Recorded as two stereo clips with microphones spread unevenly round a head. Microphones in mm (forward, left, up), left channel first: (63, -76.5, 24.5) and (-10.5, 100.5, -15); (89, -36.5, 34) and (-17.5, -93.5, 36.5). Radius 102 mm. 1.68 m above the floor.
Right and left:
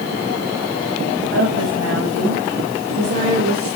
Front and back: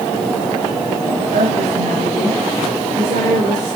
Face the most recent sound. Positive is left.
turn(degrees=175)